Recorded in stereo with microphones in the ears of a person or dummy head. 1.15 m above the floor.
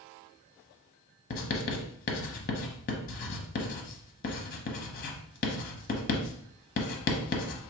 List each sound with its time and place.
1.3 s writing: 45° left (ahead or behind), 1.0 m